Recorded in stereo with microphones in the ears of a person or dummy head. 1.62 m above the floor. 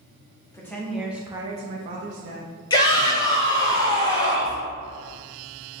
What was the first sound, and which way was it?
A woman speaking, 15° left (ahead or behind).